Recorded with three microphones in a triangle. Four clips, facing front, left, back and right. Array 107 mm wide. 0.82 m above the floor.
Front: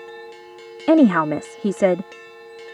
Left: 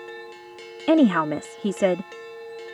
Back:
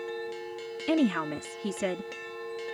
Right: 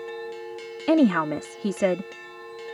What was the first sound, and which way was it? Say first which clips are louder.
A woman speaking: left 2 dB, front 12 dB; 5° left.